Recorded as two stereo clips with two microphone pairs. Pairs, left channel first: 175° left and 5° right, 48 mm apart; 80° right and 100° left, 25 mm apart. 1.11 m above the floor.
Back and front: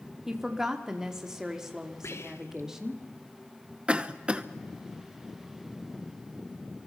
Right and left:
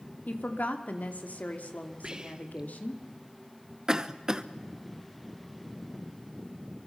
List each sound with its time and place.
0.3 s a woman speaking: 85° right, 2.5 m
2.0 s whispering: 160° left, 1.6 m
3.9 s a cough: 55° left, 0.9 m